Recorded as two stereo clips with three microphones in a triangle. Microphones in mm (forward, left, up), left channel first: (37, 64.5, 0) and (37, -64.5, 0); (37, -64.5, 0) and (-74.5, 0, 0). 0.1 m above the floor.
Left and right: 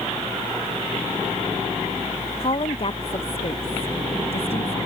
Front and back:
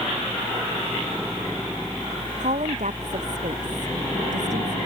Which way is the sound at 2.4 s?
130° left.